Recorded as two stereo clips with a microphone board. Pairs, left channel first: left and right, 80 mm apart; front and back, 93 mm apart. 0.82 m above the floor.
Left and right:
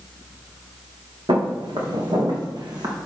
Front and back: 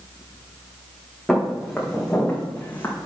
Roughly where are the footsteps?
Right.